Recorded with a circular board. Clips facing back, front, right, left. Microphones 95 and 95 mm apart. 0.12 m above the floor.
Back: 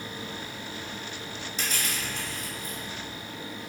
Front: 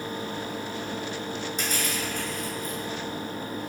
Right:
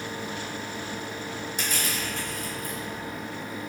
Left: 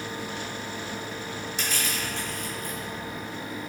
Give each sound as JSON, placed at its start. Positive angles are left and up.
{"t": 1.6, "sound": "crushing", "azimuth_deg": -50, "distance_m": 1.2}